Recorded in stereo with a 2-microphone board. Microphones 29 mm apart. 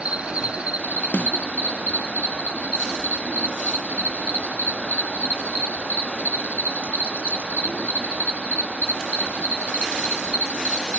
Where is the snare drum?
75° left (ahead or behind).